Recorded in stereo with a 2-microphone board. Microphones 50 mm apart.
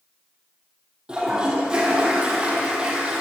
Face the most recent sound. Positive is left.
turn(degrees=-20)  # may be behind; listen again after turning